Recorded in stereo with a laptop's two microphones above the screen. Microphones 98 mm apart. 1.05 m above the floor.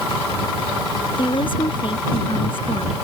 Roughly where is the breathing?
No breathing in this recording.